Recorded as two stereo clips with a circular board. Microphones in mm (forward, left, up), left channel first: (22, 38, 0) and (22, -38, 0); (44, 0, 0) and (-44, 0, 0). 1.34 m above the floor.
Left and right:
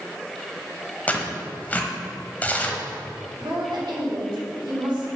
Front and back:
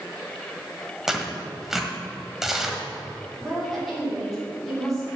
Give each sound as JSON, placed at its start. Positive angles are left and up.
{"t": 1.1, "sound": "tearing paper", "azimuth_deg": 105, "distance_m": 1.2}
{"t": 3.4, "sound": "a woman speaking", "azimuth_deg": -90, "distance_m": 3.5}